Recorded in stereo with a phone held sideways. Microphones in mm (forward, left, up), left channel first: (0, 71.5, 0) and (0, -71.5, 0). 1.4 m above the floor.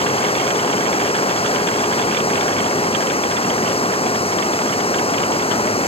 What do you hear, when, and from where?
0.0 s running water: 40° left (ahead or behind)